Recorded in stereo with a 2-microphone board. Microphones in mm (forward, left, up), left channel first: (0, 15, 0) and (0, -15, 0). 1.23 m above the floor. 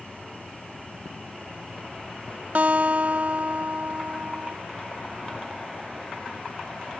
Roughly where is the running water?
Left.